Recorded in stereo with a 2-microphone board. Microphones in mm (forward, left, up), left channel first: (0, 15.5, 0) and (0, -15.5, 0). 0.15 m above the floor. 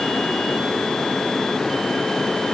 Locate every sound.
Only background noise.